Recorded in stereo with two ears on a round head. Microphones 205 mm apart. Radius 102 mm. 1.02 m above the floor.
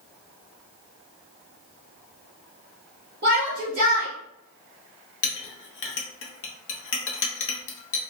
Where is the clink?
55° left (ahead or behind), 0.7 m.